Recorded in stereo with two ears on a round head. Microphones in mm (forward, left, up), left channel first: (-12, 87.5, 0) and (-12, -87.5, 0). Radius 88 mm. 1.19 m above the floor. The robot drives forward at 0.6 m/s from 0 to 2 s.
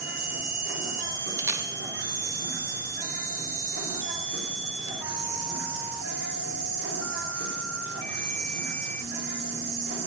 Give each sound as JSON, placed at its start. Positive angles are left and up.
{"t": 0.0, "sound": "an insect", "side_deg": -80, "distance_m": 3.5}
{"t": 1.4, "sound": "a camera shutter", "side_deg": -15, "distance_m": 0.7}